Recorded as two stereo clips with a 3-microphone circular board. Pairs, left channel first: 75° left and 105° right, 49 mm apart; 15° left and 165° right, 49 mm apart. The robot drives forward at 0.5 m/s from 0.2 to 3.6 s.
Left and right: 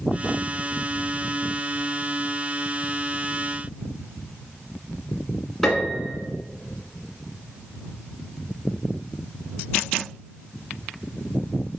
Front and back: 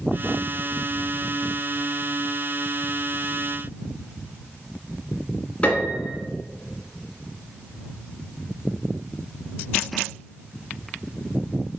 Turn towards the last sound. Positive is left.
turn(degrees=0)